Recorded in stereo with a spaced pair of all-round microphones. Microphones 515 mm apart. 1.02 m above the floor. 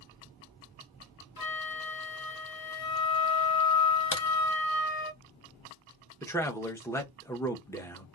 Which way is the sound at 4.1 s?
55° left (ahead or behind).